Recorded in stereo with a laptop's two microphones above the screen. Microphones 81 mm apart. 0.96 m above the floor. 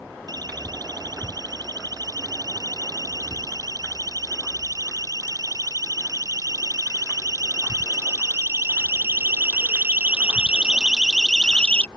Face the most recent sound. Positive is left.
turn(degrees=20)  # may be behind; listen again after turning